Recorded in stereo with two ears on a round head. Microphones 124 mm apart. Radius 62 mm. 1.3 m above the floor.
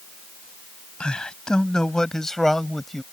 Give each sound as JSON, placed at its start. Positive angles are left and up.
{"t": 1.0, "sound": "a man speaking", "side_deg": 5}